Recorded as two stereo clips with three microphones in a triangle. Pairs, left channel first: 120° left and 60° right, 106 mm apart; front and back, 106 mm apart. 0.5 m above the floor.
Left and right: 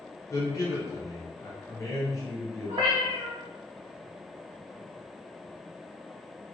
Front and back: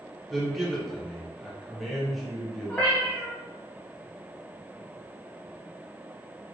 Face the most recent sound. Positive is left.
turn(degrees=-75)